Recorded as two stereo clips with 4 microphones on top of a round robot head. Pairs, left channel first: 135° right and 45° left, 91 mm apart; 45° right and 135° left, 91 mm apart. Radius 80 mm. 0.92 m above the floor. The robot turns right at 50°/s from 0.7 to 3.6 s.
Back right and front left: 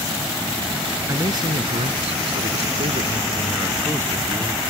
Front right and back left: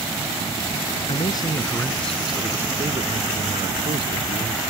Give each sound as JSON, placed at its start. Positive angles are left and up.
{"t": 1.1, "sound": "a man speaking", "azimuth_deg": -15}